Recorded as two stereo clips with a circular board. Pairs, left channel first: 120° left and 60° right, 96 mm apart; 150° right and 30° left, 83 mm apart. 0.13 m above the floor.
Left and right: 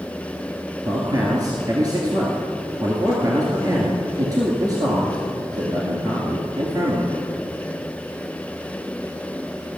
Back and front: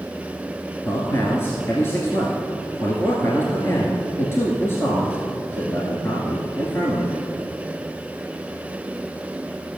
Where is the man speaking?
100° right, 1.8 m.